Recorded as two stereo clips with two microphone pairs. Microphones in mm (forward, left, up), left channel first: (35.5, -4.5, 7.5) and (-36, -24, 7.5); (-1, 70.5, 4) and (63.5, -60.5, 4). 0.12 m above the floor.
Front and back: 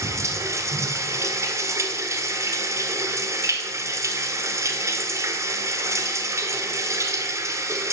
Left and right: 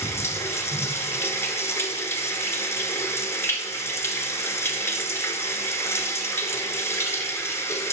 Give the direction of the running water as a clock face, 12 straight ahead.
6 o'clock.